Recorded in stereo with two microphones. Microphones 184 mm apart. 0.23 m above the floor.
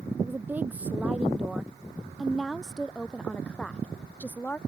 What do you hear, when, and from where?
0.2 s a woman speaking: 10° right (ahead or behind); by 4.6 s 10° left (ahead or behind)